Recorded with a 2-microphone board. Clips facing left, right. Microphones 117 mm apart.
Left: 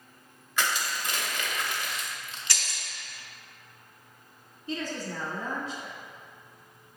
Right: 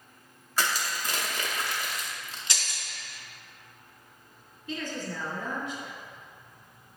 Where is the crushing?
40° right (ahead or behind), 0.7 m.